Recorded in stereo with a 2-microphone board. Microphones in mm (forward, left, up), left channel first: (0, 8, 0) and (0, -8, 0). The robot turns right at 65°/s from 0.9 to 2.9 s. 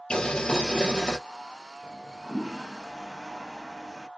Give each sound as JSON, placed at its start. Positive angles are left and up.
{"t": 0.1, "sound": "boiling", "side_deg": 75, "distance_m": 0.9}
{"t": 1.8, "sound": "a toilet flushing", "side_deg": -25, "distance_m": 0.7}